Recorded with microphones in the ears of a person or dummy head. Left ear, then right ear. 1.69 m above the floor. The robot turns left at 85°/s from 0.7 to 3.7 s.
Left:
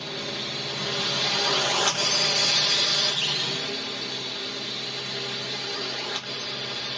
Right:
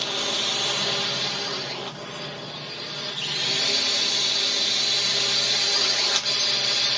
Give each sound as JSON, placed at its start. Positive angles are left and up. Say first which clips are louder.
{"t": 0.0, "sound": "a drone", "louder": "right 6 dB", "azimuth_deg": -140}